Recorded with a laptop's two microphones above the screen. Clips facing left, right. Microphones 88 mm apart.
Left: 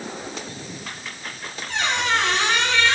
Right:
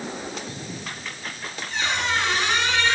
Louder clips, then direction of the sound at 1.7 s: Left 3 dB; 80° left.